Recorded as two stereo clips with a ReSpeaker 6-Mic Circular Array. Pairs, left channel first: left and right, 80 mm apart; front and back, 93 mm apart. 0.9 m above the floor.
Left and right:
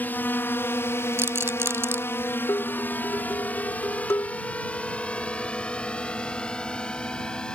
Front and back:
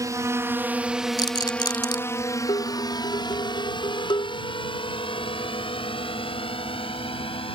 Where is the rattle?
35° right.